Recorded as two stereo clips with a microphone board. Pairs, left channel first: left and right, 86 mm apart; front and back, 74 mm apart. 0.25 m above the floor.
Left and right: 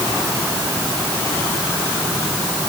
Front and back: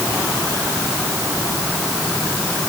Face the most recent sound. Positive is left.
No sound to turn to.